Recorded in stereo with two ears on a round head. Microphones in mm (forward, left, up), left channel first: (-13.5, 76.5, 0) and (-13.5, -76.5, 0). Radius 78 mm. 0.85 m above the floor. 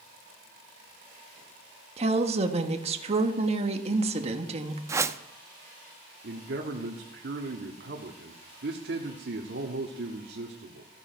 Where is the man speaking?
70° right (ahead or behind), 1.5 m.